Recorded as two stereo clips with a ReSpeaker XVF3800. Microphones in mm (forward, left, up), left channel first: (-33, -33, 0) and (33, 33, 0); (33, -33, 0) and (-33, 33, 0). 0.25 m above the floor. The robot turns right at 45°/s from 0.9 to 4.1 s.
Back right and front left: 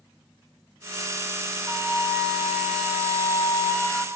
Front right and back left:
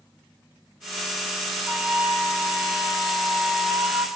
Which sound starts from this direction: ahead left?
A flute, at 1.7 s.